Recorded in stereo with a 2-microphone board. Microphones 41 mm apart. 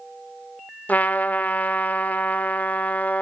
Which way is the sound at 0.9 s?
45° left (ahead or behind).